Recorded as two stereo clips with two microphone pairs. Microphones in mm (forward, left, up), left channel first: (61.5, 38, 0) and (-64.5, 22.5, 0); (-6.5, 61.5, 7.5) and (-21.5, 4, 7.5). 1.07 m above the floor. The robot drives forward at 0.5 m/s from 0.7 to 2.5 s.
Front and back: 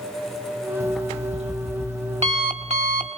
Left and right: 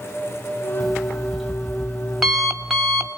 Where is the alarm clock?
165° left, 1.7 m; by 3.1 s 170° left, 2.5 m.